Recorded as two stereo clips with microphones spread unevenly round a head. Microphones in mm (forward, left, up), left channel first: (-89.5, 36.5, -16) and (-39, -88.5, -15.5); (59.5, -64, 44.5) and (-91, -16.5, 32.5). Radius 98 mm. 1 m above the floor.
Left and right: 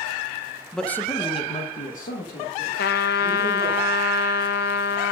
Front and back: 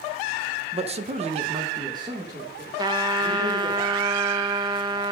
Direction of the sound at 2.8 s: 95° left.